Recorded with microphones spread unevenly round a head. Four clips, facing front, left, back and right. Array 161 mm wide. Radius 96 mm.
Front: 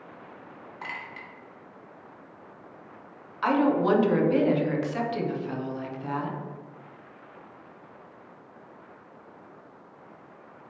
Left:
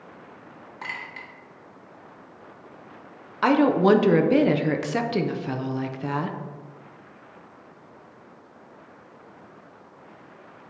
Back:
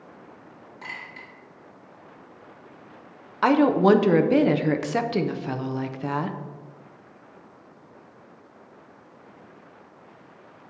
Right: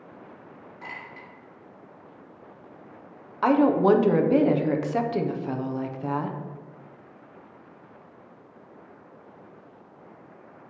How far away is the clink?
About 1.5 m.